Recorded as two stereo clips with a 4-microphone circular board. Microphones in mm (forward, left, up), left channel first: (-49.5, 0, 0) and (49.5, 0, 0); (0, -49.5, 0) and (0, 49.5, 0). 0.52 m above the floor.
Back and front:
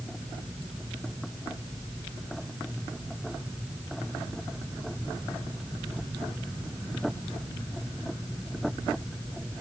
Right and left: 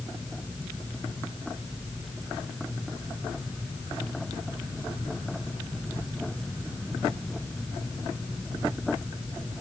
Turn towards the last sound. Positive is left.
No sound to turn to.